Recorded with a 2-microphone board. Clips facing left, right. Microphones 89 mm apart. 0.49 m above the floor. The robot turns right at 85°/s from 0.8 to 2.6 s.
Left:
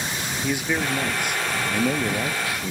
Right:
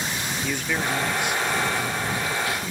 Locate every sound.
0.4 s a man speaking: 10° left; by 2.7 s 165° left